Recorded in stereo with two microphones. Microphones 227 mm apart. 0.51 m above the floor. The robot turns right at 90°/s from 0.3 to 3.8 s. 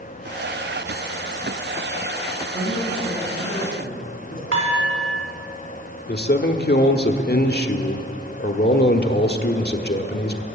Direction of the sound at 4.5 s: 80° right.